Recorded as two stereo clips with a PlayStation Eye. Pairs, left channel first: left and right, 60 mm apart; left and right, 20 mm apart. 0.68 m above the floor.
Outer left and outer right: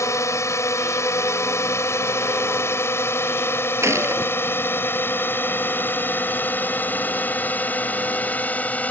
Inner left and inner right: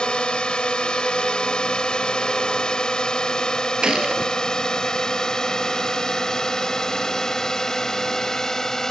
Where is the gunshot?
50° right (ahead or behind).